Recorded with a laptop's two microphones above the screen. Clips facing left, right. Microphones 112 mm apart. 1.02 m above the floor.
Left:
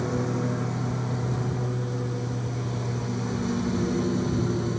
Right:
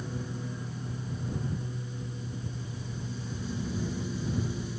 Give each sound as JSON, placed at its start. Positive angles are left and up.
{"t": 0.0, "sound": "a lawn mower", "side_deg": 90}